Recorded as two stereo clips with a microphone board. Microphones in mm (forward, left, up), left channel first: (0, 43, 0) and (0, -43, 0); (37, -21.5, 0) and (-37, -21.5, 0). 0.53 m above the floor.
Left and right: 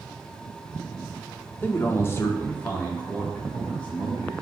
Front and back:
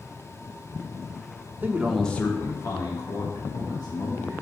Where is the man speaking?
140° left, 0.8 m; by 4.3 s 15° left, 3 m.